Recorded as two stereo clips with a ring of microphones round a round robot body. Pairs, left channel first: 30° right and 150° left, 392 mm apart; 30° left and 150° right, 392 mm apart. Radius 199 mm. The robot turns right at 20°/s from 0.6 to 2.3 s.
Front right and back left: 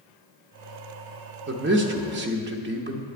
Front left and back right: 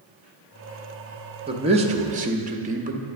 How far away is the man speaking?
About 0.7 m.